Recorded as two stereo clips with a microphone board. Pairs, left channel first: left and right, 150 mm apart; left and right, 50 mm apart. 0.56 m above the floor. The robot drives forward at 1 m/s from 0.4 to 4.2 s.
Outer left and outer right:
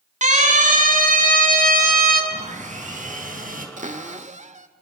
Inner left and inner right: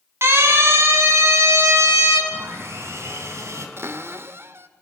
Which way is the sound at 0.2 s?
55° right (ahead or behind).